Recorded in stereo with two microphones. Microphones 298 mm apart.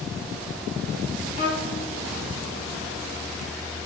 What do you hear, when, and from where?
1.4 s a violin: 25° left (ahead or behind), 1.2 m